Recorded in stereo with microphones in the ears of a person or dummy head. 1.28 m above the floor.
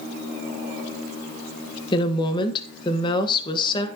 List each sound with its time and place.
1.9 s a woman speaking: 25° left (ahead or behind), 1.4 m